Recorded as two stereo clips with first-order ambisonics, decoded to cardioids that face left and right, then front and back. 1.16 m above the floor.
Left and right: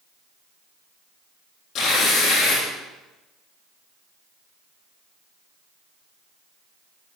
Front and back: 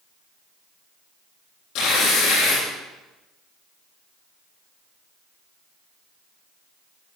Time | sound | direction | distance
1.8 | tearing paper | 40° left | 7 m